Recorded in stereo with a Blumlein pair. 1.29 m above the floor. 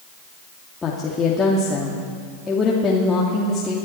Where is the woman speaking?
15° left, 2 m.